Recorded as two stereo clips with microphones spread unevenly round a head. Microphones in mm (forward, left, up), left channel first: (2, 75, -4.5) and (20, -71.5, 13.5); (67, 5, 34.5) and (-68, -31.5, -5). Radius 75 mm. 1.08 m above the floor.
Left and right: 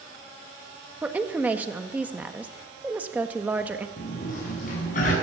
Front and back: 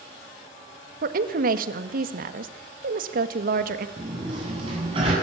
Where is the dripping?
No dripping in this recording.